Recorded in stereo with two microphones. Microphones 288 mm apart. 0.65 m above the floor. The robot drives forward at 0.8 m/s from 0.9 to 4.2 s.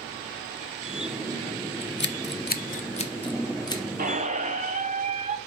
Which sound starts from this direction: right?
A squeak, at 4.0 s.